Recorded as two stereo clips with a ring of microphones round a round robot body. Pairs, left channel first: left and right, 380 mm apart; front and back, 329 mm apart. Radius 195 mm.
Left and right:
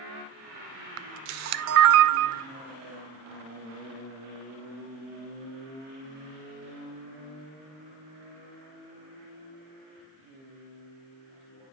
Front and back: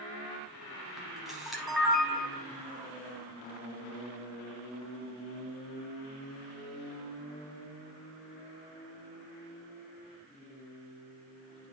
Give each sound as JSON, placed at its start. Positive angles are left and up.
{"t": 1.0, "sound": "a camera shutter", "azimuth_deg": -90, "distance_m": 0.6}